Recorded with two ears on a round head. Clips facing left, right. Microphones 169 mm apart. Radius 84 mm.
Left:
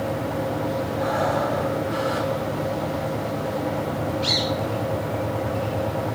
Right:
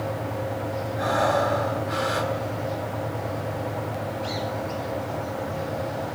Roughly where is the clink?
I don't hear a clink.